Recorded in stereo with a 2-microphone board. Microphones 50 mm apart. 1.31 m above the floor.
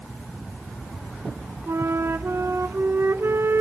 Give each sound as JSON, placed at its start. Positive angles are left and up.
{"t": 1.7, "sound": "a flute", "side_deg": -60, "distance_m": 0.6}